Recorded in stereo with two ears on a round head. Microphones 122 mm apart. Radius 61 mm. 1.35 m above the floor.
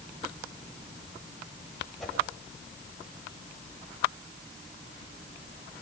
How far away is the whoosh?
About 8.5 m.